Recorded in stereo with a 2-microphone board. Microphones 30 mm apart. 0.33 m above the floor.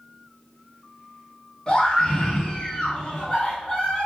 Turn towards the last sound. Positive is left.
turn(degrees=20)  # may be behind; listen again after turning